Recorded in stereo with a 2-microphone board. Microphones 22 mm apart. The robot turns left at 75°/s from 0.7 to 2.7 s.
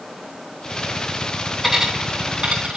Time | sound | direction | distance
1.6 | a dropped coin | 15° right (ahead or behind) | 4 m